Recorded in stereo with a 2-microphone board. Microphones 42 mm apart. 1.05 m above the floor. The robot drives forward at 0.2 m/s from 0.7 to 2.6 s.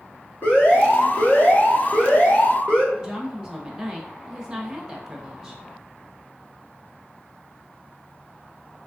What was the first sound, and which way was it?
An alarm, 45° left (ahead or behind).